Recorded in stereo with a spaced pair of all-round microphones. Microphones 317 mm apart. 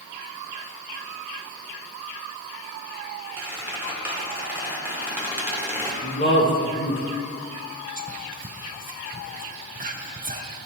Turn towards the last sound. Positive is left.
turn(degrees=-25)  # may be behind; listen again after turning